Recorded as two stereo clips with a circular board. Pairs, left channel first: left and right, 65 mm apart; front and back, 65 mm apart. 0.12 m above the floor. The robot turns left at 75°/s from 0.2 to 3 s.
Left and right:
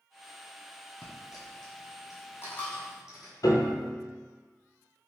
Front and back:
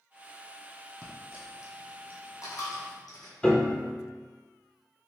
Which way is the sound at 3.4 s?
75° left.